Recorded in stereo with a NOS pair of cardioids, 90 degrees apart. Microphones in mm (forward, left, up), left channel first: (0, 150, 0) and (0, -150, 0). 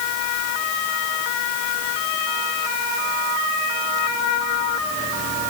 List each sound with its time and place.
Only background noise.